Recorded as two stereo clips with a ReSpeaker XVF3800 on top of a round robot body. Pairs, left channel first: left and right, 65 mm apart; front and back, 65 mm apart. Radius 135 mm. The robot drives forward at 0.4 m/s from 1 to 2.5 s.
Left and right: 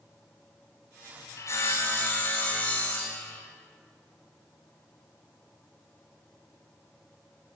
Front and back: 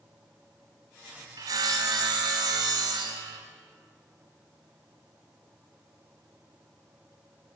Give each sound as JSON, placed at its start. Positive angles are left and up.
{"t": 1.4, "sound": "sawing", "azimuth_deg": 140, "distance_m": 0.5}